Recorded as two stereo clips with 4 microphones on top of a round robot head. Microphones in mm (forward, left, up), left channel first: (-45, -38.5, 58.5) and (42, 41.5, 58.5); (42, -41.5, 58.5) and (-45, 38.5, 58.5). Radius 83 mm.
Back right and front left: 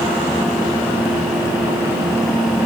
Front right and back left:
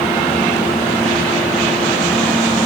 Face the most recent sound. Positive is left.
No sound to turn to.